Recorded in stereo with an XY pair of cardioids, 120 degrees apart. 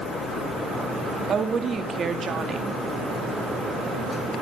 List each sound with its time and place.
1.3 s a woman speaking: 40° right, 2.5 m